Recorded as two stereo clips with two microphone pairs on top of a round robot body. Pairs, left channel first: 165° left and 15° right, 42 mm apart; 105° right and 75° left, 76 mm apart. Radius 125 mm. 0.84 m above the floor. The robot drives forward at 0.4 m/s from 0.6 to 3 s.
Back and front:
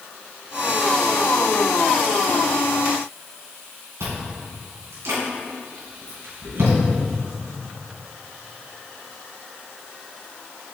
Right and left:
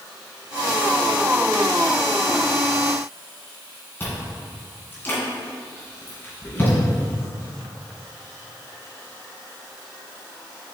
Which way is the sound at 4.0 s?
35° right.